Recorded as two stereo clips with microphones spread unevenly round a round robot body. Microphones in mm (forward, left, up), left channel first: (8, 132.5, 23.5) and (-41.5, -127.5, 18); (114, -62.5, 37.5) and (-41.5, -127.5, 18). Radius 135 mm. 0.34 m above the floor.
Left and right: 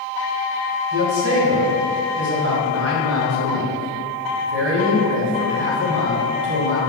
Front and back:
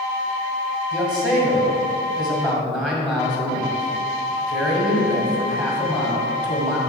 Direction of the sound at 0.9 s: 80° right.